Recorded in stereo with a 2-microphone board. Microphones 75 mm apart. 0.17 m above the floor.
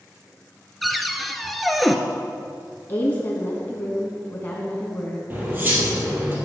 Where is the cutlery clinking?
30° right (ahead or behind), 3 m.